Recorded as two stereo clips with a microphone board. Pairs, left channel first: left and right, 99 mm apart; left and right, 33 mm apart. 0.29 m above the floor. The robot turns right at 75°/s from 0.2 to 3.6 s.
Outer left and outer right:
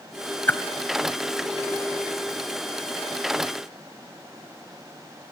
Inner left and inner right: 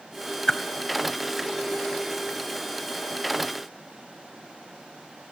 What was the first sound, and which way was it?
A whoosh, 20° left (ahead or behind).